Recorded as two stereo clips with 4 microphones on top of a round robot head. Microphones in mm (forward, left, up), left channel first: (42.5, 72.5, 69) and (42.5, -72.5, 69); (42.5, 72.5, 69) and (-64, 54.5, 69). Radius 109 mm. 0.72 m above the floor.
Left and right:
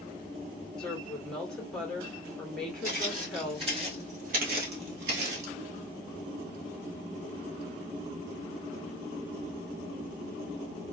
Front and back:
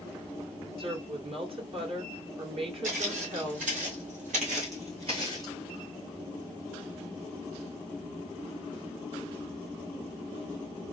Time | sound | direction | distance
0.8 | a woman speaking | 175° left | 1.8 m
2.8 | footsteps | 165° right | 2.0 m